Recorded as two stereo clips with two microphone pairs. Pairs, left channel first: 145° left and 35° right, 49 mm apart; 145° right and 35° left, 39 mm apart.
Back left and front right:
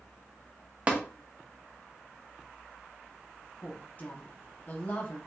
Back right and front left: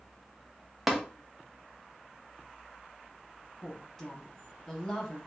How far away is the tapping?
About 0.7 m.